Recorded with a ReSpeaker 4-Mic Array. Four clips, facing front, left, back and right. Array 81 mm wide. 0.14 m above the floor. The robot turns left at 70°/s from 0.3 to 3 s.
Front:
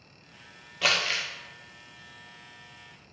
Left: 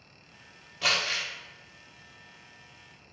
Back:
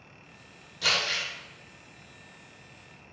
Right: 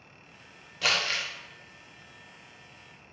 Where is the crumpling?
5° right, 0.5 m; by 1.3 s 35° right, 0.5 m.